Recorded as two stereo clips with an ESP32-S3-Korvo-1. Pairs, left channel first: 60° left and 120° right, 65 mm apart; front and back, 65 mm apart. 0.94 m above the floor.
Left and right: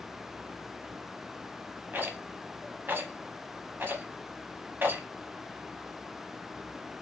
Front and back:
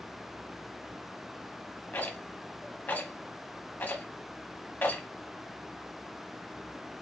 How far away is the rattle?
About 0.9 m.